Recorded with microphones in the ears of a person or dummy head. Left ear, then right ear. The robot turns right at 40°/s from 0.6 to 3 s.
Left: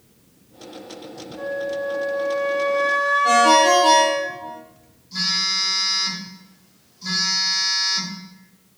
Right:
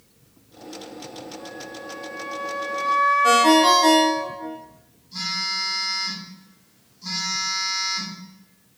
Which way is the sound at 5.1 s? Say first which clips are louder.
Left 5 dB; 30° left (ahead or behind).